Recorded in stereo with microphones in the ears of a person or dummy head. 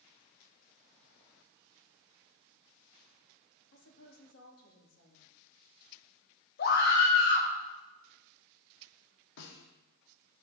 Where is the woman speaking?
70° left (ahead or behind), 2.5 m.